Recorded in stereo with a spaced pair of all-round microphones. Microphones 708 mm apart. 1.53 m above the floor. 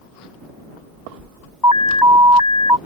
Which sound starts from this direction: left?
An alarm, at 1.6 s.